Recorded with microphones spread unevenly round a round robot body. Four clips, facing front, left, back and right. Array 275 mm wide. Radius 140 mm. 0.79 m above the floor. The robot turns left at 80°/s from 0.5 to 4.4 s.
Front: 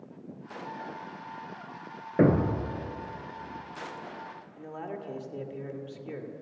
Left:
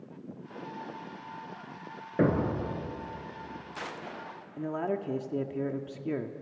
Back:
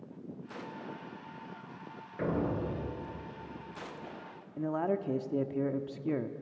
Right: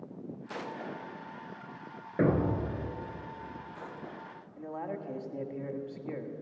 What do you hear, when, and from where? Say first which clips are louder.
2.2 s a thud: left 1 dB, front 9 dB; 15° left, 3 m; by 2.8 s 35° right, 3 m
4.6 s a man speaking: left 6 dB, back 8 dB; 140° left, 1.6 m